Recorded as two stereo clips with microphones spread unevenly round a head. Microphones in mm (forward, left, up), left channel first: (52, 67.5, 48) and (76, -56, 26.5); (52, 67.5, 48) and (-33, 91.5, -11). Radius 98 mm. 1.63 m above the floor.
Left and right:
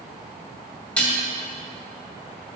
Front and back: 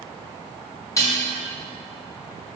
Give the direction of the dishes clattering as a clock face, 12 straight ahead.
11 o'clock.